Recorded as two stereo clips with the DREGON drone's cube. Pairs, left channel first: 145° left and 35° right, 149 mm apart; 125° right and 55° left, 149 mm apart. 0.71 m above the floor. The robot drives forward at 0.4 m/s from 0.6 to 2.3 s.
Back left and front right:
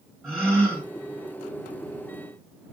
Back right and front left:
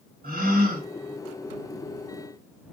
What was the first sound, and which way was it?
A gasp, 60° left.